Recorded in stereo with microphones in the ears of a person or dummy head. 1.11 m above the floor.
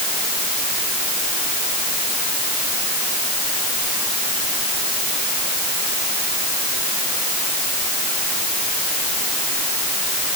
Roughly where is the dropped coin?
No dropped coin in this recording.